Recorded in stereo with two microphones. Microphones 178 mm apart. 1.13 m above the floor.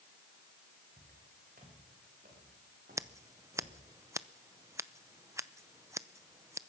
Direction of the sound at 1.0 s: 55° right (ahead or behind).